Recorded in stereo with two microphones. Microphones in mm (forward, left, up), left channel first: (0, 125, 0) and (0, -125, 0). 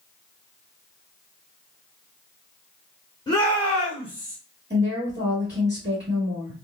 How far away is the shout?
About 1.5 m.